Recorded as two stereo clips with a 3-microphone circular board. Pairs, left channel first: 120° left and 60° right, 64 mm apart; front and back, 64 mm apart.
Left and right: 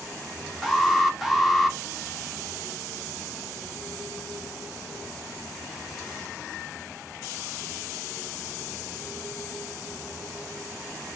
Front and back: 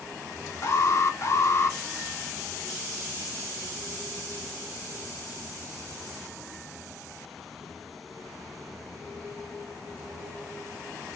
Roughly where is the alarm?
Ahead left.